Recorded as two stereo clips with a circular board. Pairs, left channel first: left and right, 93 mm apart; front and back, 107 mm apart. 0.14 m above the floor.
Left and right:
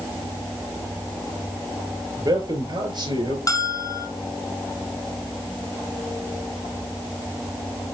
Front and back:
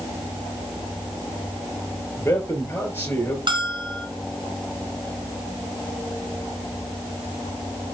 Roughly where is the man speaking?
Ahead right.